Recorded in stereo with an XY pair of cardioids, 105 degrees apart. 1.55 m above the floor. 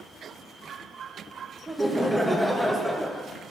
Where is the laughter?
Straight ahead, 0.8 m.